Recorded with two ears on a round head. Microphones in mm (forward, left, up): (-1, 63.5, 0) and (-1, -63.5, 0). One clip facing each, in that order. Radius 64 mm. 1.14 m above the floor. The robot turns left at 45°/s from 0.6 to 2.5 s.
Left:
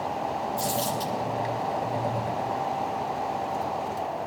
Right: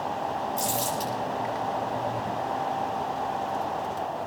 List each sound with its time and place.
0.6 s crumpling: 25° right (ahead or behind), 9 m; by 1.1 s centre (ahead or behind), 9 m